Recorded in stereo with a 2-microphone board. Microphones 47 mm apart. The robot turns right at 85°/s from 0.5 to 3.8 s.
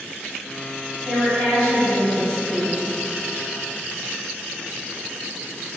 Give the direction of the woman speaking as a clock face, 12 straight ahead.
2 o'clock.